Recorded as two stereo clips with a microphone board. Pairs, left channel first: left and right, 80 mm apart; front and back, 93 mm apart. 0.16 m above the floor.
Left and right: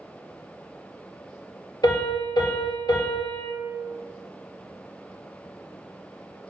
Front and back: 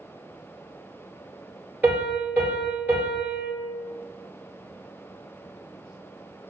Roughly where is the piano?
Left.